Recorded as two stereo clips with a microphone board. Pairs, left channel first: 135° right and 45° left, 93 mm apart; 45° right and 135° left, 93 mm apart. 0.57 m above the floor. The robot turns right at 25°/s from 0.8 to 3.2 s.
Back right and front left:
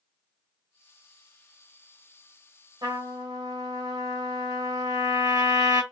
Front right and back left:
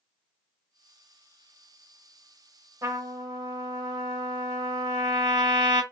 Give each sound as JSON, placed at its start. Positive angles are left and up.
{"t": 2.8, "sound": "a trumpet", "azimuth_deg": 80, "distance_m": 0.6}